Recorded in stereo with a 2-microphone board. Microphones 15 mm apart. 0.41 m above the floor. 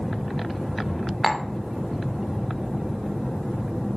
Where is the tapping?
25° left (ahead or behind), 0.7 m.